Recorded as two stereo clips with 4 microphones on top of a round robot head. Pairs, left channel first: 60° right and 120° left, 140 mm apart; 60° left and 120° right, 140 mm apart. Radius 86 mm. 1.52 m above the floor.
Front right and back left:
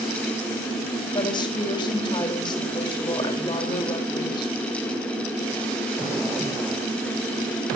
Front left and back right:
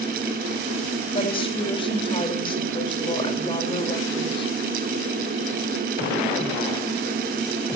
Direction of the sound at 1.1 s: Straight ahead.